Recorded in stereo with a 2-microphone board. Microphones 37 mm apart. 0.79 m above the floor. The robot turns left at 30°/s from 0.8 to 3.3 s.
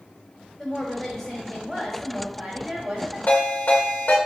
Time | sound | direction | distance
0.6 | a woman speaking | 15° left | 1.5 m
3.3 | a ringtone | 80° left | 2.0 m